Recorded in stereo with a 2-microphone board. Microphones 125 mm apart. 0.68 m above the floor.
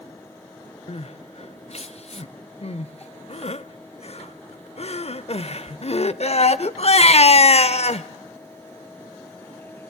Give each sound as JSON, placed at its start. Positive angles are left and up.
{"t": 0.9, "sound": "crying", "side_deg": 55, "distance_m": 0.6}